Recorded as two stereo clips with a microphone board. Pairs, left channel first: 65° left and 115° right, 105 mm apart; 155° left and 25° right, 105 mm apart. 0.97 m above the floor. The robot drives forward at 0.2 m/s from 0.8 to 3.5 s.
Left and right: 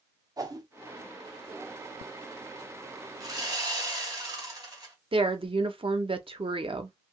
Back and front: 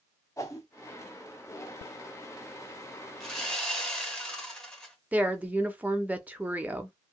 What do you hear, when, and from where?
0.4 s a whoosh: 155° right, 0.6 m
3.2 s sawing: 120° right, 1.0 m; by 5.0 s 125° right, 1.0 m
5.1 s a woman speaking: 95° right, 0.6 m